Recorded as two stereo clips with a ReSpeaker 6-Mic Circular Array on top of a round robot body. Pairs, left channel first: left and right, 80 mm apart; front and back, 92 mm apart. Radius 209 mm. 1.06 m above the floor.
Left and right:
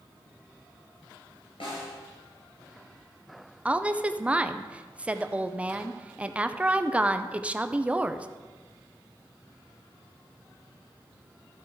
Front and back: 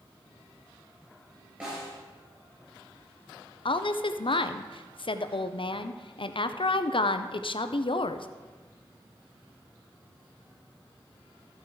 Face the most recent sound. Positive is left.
turn(degrees=-15)